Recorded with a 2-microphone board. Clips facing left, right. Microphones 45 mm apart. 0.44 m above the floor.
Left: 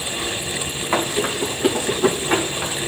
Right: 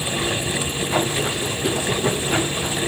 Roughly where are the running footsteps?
Left.